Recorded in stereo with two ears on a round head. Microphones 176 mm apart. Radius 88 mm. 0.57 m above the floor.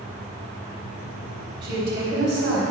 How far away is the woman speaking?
About 3.5 m.